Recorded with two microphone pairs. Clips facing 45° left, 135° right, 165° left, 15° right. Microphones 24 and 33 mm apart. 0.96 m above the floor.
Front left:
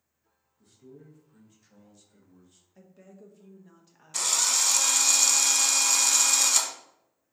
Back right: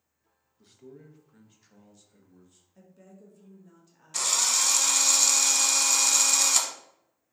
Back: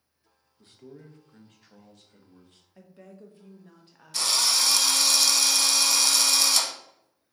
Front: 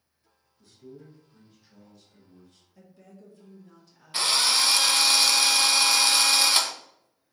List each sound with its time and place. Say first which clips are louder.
0.6 s a man speaking: back right 2 dB, even; 155° right, 0.9 m; by 2.6 s 125° left, 1.4 m
2.8 s a woman speaking: front left 1 dB, back 4 dB; 115° left, 0.7 m
4.1 s a drill: even, front 2 dB; 50° right, 0.6 m